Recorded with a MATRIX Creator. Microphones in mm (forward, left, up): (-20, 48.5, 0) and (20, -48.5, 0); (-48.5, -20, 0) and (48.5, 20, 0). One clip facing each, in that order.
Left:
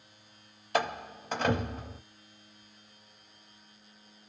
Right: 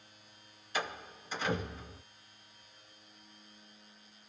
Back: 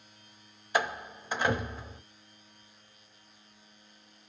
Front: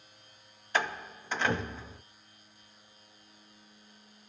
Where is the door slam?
125° left, 0.8 m.